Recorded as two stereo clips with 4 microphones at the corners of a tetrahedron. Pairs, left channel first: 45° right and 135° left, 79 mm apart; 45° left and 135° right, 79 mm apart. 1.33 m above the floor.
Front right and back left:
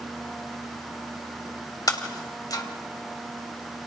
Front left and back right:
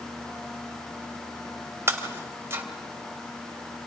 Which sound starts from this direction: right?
Breaking glass, at 1.9 s.